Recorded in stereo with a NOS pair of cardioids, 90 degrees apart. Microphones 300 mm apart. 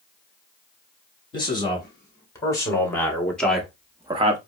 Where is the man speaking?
15° left, 3.5 m; by 4.4 s 40° right, 0.8 m.